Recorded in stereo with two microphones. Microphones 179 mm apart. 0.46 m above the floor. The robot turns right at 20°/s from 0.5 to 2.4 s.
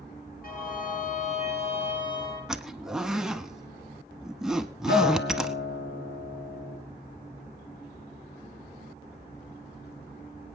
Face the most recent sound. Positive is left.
turn(degrees=65)  # may be behind; listen again after turning